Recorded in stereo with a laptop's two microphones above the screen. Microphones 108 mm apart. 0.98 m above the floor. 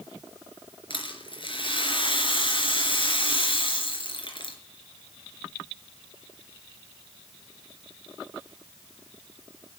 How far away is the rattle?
About 3.5 m.